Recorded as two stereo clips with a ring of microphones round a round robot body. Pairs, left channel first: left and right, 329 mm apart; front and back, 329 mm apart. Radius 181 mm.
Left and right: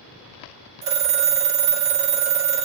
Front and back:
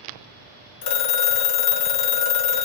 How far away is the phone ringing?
About 0.9 m.